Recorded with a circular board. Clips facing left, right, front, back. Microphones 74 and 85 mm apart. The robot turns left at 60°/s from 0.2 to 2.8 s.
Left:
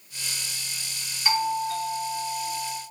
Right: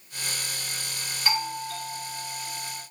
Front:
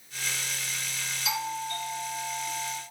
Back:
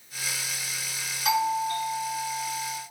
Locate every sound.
1.2 s a doorbell: 175° left, 2 m; by 2.8 s 80° left, 2 m